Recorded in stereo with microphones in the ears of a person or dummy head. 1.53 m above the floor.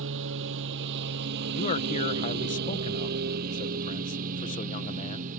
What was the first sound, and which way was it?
A lawn mower, 70° right (ahead or behind).